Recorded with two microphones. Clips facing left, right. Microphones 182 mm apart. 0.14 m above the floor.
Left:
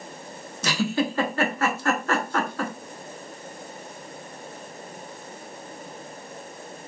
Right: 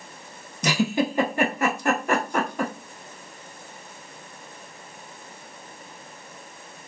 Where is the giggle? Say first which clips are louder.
Right 2 dB; 15° right (ahead or behind), 0.5 m.